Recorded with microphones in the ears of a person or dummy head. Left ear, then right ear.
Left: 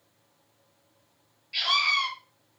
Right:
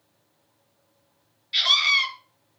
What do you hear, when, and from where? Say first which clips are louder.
1.5 s a scream: right 5 dB; 45° right (ahead or behind), 3.5 m